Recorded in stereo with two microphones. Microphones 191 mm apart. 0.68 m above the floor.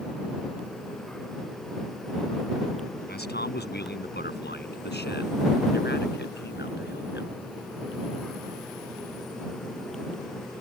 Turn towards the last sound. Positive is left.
turn(degrees=75)  # may be behind; listen again after turning